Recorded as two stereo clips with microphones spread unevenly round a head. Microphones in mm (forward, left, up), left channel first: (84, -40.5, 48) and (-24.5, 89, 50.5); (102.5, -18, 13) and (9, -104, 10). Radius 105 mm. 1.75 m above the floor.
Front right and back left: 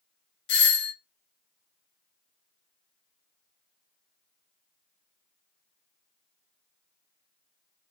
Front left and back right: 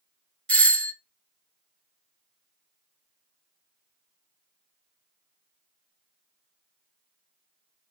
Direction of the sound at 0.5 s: 40° right.